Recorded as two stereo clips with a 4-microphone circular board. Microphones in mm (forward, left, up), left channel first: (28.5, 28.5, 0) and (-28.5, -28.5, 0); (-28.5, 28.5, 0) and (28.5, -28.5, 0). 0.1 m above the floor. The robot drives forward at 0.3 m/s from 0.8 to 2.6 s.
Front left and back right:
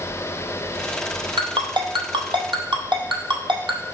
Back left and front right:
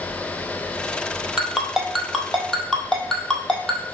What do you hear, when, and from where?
1.4 s a ringtone: 125° right, 1.2 m; by 3.8 s 140° right, 1.4 m